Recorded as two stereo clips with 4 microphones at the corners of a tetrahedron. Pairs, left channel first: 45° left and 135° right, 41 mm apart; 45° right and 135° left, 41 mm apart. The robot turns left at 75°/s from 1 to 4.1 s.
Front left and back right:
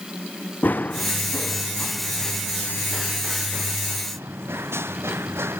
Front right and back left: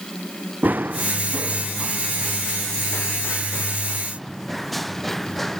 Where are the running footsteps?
90° left; by 5.6 s 130° right.